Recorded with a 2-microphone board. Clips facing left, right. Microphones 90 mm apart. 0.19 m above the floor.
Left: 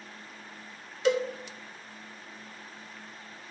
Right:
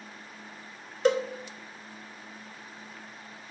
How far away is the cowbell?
About 0.7 m.